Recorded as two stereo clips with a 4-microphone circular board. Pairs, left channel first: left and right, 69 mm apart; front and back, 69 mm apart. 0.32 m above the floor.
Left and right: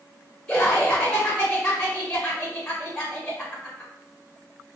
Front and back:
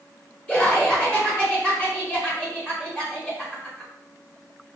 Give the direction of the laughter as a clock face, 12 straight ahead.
10 o'clock.